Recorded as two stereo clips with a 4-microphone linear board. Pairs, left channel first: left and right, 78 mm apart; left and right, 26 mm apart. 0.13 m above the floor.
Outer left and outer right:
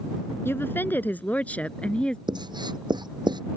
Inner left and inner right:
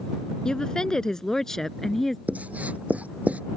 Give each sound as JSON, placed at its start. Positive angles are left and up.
{"t": 0.5, "sound": "a woman speaking", "side_deg": 30}
{"t": 2.3, "sound": "writing", "side_deg": -65}